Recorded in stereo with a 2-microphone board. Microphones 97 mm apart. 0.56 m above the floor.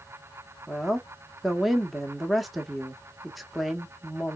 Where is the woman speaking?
Centre (ahead or behind), 0.6 m.